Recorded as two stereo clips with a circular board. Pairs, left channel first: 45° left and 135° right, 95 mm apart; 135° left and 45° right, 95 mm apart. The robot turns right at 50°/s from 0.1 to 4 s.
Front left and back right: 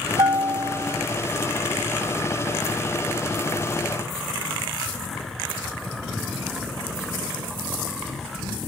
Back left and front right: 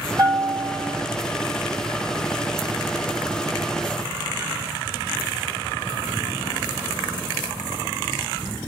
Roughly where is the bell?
Right.